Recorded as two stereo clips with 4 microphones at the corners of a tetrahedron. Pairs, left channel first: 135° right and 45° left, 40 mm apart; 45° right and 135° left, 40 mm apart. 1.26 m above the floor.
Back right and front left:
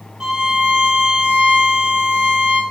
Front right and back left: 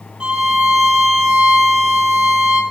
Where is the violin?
90° left, 1.3 m.